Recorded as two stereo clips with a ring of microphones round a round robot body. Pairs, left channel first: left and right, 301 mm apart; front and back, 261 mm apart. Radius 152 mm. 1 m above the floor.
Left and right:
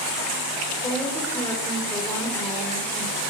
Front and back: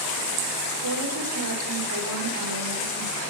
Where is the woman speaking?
170° left, 4 m.